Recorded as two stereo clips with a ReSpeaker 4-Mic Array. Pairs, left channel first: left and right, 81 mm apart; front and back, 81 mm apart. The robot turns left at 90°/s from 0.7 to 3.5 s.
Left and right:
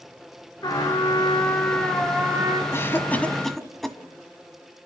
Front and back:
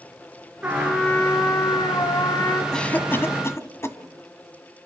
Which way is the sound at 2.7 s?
75° left.